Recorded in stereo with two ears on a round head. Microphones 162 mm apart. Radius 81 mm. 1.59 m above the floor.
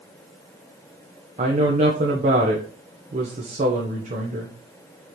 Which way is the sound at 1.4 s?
40° right (ahead or behind).